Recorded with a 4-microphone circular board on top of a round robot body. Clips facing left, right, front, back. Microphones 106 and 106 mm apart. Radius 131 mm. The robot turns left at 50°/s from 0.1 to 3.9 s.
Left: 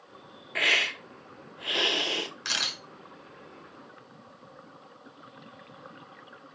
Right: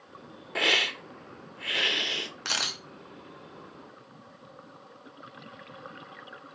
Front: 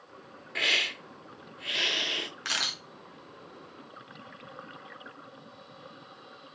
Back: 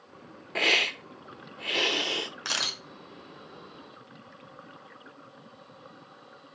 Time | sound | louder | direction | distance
0.6 | a hiss | right 2 dB, back 5 dB | 150° right | 0.6 m
2.5 | a camera shutter | right 1 dB, back 1 dB | 120° right | 1.2 m